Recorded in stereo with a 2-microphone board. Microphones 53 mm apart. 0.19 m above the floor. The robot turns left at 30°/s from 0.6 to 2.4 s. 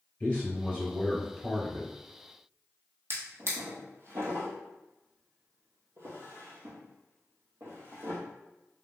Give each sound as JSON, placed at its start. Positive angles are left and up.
{"t": 0.2, "sound": "a man speaking", "azimuth_deg": 25, "distance_m": 1.9}
{"t": 3.1, "sound": "a drawer", "side_deg": -55, "distance_m": 1.4}